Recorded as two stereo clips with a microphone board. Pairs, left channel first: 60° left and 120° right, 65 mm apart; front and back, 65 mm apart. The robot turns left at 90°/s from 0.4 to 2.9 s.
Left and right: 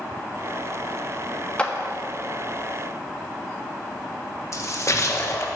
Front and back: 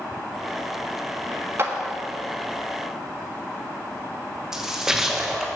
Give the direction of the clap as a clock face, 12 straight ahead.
8 o'clock.